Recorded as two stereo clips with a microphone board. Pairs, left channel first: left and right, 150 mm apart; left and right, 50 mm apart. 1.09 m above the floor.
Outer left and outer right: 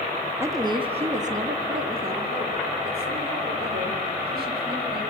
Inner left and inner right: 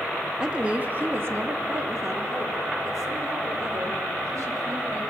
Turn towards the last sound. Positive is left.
turn(degrees=-90)